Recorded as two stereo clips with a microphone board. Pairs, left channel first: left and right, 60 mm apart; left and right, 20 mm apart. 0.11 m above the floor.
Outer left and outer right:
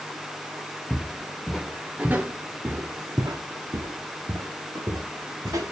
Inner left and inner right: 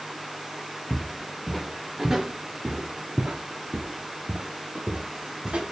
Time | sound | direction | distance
0.9 | footsteps | 5° left (ahead or behind) | 1.3 m